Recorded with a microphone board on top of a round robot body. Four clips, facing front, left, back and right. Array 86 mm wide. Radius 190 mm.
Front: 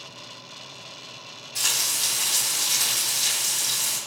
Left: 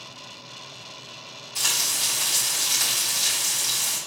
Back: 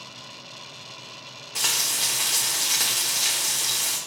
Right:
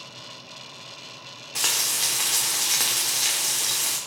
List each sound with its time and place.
1.6 s frying: 115° right, 0.9 m